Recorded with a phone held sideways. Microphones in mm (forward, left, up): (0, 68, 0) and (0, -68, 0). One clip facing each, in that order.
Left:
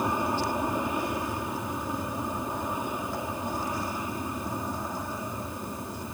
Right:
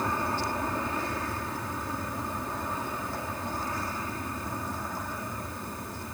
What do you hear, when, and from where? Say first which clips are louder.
0.0 s an aircraft: left 3 dB; 15° left (ahead or behind)